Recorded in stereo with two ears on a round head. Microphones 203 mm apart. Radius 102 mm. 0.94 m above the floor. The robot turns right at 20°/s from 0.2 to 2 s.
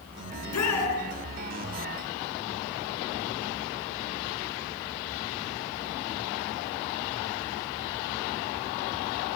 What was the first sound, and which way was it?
A shout, 70° left (ahead or behind).